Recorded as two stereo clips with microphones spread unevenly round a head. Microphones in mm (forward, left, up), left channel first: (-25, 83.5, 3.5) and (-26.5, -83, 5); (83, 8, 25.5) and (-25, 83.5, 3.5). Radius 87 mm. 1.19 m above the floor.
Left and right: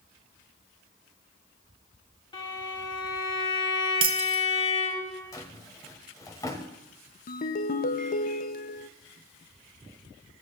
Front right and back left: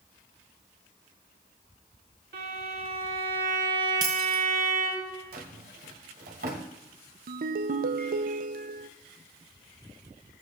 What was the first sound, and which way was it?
A violin, 155° left.